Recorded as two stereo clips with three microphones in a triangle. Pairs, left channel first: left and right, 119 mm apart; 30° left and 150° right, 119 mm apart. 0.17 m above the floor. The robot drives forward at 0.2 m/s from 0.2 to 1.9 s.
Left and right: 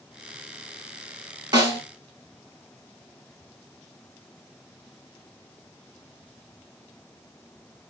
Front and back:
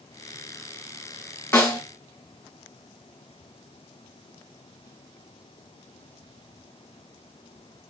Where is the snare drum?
45° right, 0.9 m.